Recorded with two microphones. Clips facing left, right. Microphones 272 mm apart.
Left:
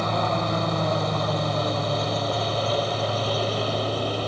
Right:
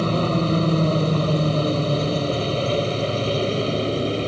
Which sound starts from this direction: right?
A helicopter, at 0.0 s.